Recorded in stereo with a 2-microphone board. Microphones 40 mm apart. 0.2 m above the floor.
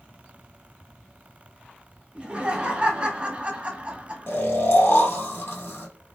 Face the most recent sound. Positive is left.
turn(degrees=70)  # may be behind; listen again after turning